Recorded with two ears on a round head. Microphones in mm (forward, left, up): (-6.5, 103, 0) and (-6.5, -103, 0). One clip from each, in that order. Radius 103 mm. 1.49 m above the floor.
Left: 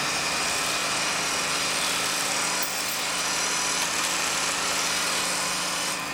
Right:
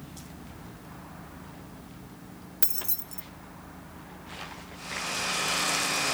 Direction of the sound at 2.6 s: 25° right (ahead or behind).